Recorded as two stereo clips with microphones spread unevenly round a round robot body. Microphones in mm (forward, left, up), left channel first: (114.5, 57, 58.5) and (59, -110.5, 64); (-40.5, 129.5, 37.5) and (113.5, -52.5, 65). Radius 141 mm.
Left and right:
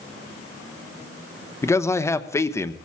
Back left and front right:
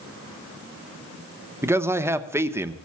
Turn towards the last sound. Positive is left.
turn(degrees=30)